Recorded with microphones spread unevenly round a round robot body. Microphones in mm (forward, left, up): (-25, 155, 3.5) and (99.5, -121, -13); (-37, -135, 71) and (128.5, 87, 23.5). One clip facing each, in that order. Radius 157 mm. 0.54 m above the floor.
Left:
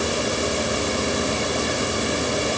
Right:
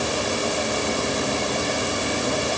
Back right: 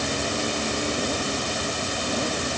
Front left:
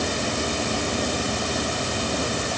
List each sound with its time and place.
Only background noise.